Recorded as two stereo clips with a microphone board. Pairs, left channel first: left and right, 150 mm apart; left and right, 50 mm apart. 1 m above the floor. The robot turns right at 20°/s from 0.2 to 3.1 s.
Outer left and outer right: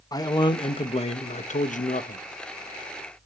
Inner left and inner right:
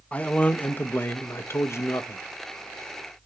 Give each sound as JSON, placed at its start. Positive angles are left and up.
{"t": 0.1, "sound": "a man speaking", "azimuth_deg": 25, "distance_m": 0.8}